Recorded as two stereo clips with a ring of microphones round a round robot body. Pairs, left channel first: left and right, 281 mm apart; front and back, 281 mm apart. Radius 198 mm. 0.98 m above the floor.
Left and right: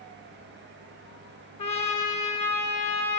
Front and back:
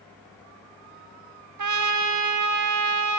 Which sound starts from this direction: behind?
A trumpet, at 1.6 s.